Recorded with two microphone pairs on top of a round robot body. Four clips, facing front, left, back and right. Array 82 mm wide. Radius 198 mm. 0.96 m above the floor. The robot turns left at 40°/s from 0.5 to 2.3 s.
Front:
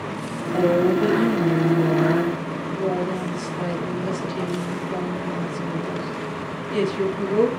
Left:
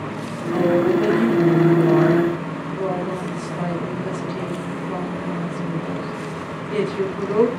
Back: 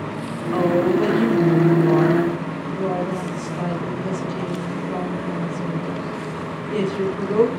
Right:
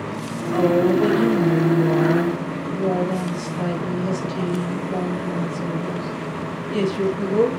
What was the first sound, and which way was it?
A woman speaking, 170° right.